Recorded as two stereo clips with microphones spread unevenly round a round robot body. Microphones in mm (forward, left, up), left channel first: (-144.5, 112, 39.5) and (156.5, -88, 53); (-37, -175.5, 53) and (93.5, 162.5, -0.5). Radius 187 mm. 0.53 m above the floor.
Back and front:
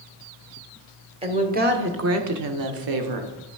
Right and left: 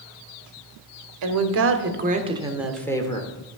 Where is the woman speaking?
40° left, 1.4 m; by 3.3 s 35° right, 1.5 m.